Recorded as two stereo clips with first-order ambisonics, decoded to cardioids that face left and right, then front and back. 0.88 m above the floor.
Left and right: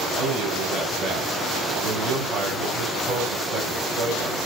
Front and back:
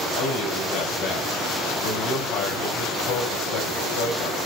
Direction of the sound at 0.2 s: 40° right.